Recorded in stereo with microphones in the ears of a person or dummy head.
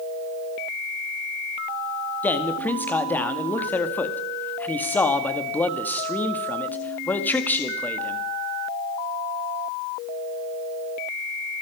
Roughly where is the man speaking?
Centre.